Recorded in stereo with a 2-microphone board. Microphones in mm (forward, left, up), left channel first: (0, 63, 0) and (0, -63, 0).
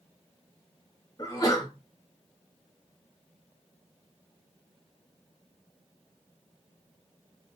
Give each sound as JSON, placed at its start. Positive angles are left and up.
{"t": 1.2, "sound": "a sneeze", "side_deg": 35, "distance_m": 1.8}